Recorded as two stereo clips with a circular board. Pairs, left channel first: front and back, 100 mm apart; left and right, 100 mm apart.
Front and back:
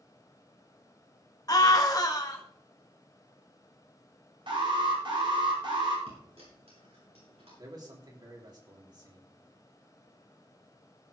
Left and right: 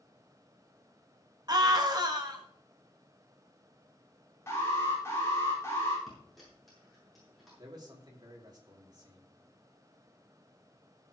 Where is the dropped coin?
Straight behind, 7.5 m.